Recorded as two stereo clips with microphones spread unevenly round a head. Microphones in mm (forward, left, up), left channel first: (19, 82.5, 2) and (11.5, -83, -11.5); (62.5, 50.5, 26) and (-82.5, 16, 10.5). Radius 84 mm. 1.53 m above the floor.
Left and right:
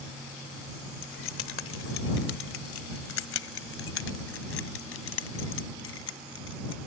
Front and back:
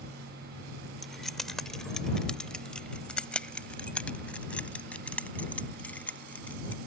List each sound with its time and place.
1.0 s keys jangling: 100° left; by 6.8 s 90° left